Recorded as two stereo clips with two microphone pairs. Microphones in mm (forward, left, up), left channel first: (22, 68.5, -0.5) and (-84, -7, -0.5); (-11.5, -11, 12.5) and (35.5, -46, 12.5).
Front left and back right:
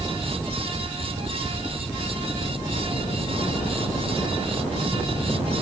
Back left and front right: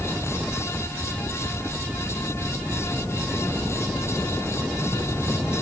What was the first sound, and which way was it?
Only background noise.